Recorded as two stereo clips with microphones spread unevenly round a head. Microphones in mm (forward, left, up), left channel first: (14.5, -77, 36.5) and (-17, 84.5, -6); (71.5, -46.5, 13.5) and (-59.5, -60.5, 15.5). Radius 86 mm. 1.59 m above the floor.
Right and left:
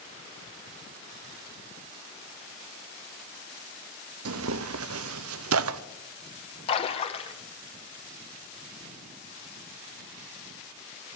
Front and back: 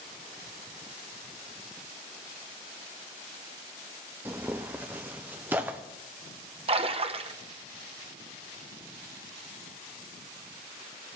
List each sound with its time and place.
4.2 s tearing paper: 105° left, 0.6 m
6.7 s a splash: 130° right, 1.0 m